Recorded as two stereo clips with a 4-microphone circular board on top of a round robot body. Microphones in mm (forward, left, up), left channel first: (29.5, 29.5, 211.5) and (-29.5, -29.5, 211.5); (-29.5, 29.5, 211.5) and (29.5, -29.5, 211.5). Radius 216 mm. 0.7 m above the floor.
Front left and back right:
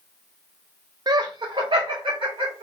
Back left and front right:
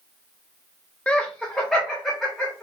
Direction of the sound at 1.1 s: 150° right.